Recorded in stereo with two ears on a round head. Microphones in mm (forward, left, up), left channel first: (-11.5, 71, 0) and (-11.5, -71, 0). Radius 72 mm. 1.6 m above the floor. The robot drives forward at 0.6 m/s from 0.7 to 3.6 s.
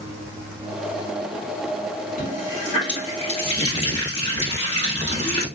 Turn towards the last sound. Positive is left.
turn(degrees=35)  # may be behind; listen again after turning